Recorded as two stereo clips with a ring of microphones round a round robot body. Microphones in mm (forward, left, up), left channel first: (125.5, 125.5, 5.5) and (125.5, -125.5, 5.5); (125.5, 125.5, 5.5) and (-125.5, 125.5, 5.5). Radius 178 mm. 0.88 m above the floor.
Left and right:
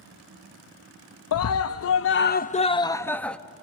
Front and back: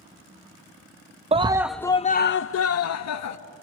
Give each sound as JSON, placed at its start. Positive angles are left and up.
{"t": 1.3, "sound": "a scream", "azimuth_deg": 115, "distance_m": 0.7}